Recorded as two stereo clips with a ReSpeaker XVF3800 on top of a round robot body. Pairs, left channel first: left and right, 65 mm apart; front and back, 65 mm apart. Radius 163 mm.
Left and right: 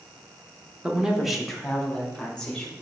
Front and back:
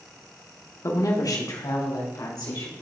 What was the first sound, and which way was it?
A woman speaking, 20° right.